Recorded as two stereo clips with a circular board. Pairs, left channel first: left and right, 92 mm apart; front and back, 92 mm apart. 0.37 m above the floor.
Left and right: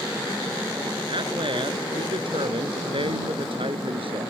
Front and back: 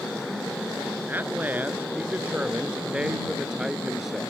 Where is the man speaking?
115° right; by 4.3 s 95° right.